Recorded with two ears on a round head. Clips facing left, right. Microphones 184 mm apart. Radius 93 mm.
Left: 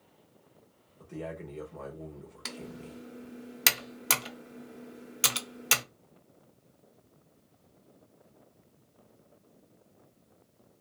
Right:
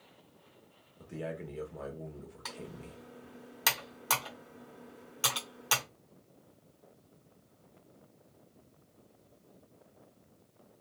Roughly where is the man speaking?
Centre.